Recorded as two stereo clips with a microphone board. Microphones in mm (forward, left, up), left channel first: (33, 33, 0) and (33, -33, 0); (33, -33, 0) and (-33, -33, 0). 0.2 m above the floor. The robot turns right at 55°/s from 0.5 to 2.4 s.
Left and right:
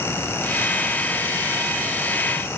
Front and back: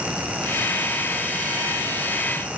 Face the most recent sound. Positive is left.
No sound to turn to.